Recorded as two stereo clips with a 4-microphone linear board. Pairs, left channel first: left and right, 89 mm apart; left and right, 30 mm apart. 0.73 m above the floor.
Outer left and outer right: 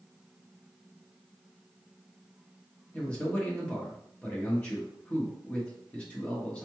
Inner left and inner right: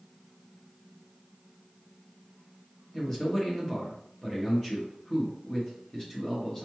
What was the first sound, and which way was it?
A man speaking, 15° left (ahead or behind).